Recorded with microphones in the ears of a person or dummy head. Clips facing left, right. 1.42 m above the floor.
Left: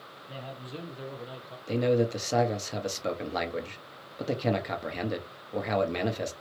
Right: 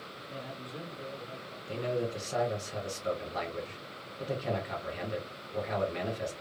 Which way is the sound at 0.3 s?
60° left (ahead or behind).